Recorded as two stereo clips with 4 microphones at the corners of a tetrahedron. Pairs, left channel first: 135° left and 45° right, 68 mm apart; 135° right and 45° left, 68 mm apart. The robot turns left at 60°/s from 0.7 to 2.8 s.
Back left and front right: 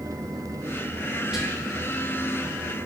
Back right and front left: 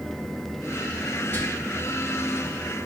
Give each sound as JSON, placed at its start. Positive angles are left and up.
{"t": 1.3, "sound": "whispering", "azimuth_deg": -115, "distance_m": 1.1}